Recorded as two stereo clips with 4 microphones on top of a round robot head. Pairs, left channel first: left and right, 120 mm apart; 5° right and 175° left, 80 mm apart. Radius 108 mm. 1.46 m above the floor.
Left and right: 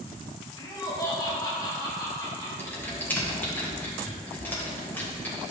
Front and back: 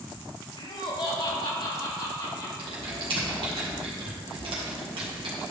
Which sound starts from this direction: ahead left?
Laughter, at 0.6 s.